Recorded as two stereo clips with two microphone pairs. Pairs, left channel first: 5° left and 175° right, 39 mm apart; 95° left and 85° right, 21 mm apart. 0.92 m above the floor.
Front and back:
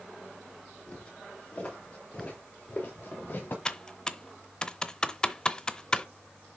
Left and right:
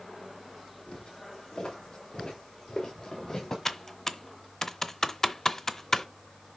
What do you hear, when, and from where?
0.9 s footsteps: 65° left, 6.5 m; by 3.5 s 35° left, 4 m
3.6 s typing on a keyboard: 45° left, 0.7 m